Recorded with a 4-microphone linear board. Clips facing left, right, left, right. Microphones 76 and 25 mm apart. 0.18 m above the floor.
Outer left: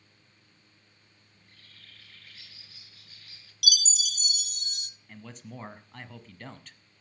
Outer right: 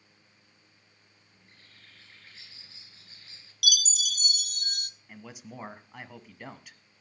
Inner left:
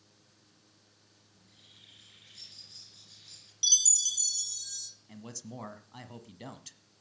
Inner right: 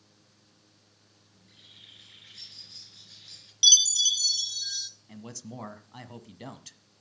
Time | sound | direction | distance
1.3 | a bird | 25° right (ahead or behind) | 2.5 m
3.6 | a chime | 50° right (ahead or behind) | 0.8 m
5.1 | a man speaking | 10° right (ahead or behind) | 1.2 m